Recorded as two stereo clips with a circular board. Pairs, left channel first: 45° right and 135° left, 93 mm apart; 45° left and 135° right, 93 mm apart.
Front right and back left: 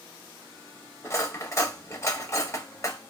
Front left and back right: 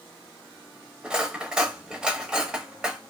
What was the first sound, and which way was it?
Cutlery clinking, 60° right.